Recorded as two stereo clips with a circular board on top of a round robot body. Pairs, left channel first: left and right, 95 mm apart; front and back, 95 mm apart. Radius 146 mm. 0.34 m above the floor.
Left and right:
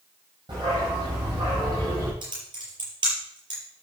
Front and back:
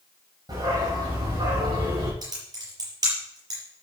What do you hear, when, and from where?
0.5 s a dog barking: 130° right, 8.5 m; by 2.1 s 140° right, 7.5 m
2.2 s typing on a keyboard: 130° right, 5 m